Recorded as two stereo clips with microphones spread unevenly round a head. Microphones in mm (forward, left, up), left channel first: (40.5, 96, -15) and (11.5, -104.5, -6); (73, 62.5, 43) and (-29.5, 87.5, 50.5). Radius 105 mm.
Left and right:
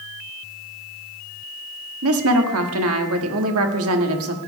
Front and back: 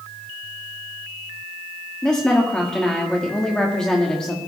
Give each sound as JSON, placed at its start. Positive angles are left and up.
{"t": 2.0, "sound": "a woman speaking", "azimuth_deg": -95, "distance_m": 1.9}